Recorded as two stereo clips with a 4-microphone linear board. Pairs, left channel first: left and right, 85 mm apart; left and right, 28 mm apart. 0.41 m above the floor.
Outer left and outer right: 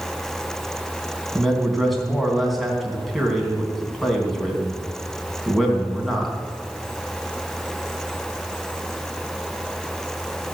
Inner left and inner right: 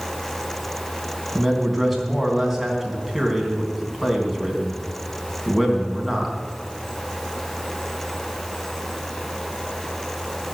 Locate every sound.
1.4 s a man speaking: centre (ahead or behind), 3.5 m